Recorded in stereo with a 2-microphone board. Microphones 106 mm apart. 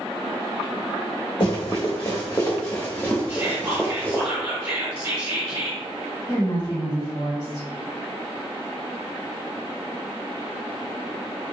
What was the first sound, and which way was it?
Running footsteps, 45° left (ahead or behind).